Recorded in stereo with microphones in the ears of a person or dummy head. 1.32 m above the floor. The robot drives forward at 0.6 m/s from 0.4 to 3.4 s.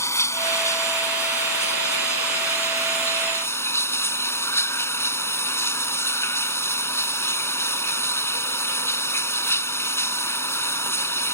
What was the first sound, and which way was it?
Running water, 15° left (ahead or behind).